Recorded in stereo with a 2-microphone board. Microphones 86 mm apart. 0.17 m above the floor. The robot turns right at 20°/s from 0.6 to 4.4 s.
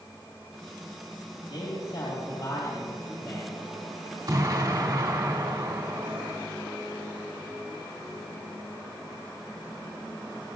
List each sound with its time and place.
1.5 s a man speaking: 100° left, 4 m; by 3.6 s 140° left, 4 m
4.3 s an explosion: 40° right (ahead or behind), 1.7 m